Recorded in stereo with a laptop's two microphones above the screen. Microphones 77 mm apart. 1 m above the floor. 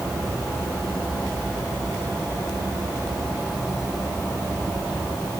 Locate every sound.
Only background noise.